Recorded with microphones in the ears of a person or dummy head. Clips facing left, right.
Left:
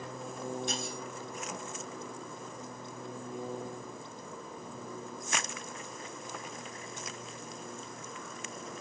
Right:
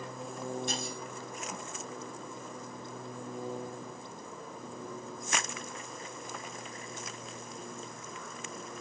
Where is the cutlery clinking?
Centre (ahead or behind), 2 m.